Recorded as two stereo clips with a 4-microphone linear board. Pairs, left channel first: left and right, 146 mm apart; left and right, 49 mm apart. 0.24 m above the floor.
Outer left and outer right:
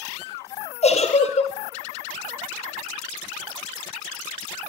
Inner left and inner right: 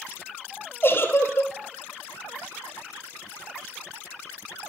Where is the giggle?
50° left (ahead or behind), 2 m.